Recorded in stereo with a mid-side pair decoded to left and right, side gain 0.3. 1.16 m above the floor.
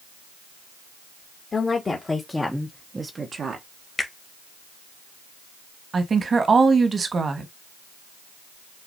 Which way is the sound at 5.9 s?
55° right.